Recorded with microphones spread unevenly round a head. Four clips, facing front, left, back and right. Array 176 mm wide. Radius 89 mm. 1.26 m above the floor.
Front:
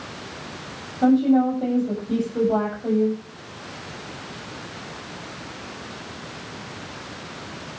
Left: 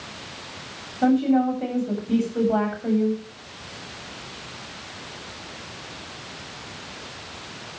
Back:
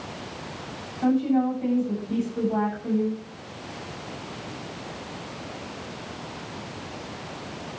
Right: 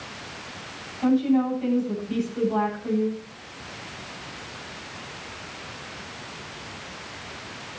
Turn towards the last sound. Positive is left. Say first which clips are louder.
# left 2 dB, front 5 dB
turn(degrees=40)